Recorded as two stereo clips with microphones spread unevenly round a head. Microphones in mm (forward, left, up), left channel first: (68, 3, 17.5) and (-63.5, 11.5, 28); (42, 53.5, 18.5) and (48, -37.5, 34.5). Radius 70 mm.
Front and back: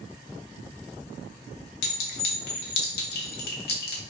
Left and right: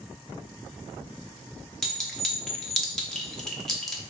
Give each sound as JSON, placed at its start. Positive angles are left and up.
{"t": 1.8, "sound": "a clink", "azimuth_deg": 5, "distance_m": 1.1}